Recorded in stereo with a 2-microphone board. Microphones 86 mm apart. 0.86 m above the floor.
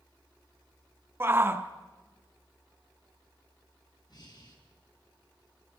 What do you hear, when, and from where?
1.2 s a shout: 25° right (ahead or behind), 1.1 m
4.1 s breathing: 55° left (ahead or behind), 4 m